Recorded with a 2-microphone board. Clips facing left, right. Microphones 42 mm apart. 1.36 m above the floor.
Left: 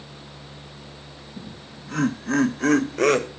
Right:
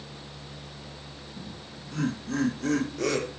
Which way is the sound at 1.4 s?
70° left (ahead or behind).